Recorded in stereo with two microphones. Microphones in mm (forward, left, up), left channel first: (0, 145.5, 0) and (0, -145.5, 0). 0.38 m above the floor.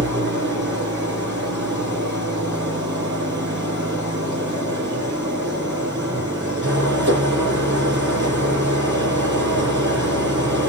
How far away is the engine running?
About 6 m.